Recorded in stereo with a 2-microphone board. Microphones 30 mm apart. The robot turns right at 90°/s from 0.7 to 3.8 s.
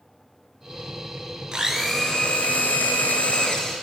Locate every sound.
1.5 s a blender: 30° right, 0.8 m; by 3.8 s 175° left, 0.8 m